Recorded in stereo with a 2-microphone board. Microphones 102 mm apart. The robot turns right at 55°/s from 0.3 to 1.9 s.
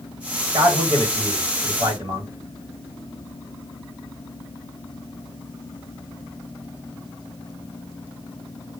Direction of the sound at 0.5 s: 130° right.